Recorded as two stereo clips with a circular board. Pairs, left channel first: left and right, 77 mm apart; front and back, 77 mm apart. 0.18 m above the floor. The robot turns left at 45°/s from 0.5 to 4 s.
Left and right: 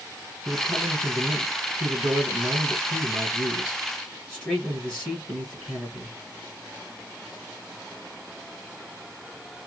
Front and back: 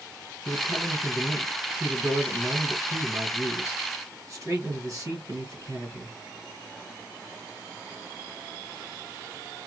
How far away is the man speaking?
About 1.9 m.